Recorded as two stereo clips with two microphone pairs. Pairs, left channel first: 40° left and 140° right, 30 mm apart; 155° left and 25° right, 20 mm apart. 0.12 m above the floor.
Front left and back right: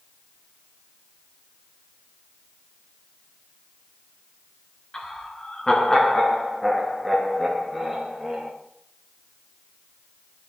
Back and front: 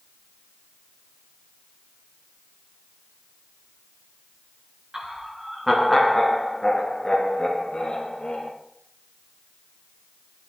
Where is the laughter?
5° right, 1.4 m; by 8.5 s 135° left, 2 m.